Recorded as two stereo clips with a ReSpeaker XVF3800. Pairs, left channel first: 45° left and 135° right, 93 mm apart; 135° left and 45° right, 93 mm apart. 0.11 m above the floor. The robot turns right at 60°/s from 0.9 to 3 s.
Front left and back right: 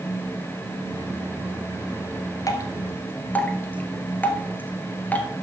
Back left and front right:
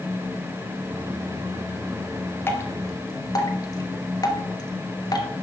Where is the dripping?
80° left, 1.7 m; by 5.3 s 110° left, 1.7 m.